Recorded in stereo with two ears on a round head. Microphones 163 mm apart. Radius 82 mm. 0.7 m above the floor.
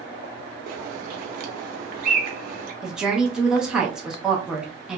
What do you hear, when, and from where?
0.7 s a bird: 50° right (ahead or behind), 0.7 m
2.8 s a woman speaking: 5° right (ahead or behind), 0.6 m